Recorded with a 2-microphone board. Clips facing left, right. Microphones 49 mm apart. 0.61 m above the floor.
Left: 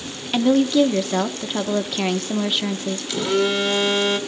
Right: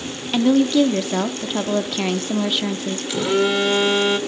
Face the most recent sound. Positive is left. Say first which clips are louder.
# right 2 dB
turn(degrees=-10)  # may be behind; listen again after turning